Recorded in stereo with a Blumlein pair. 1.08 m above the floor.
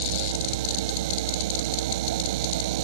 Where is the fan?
60° right.